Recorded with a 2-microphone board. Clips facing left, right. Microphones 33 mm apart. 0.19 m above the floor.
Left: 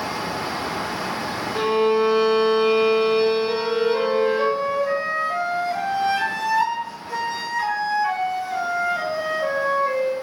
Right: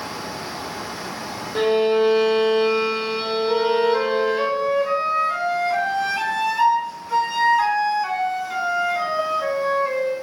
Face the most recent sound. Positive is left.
turn(degrees=-50)  # may be behind; listen again after turning